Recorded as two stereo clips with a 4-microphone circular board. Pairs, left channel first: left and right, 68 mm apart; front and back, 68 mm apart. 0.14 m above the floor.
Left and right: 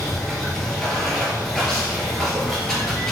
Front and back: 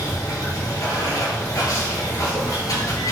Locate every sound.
0.0 s running water: 10° left, 1.5 m